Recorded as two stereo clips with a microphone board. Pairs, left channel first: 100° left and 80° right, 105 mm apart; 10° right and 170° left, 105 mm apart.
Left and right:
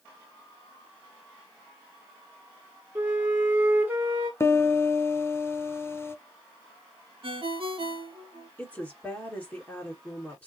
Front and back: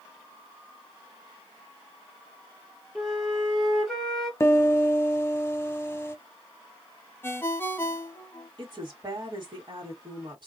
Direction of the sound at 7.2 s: 75° right.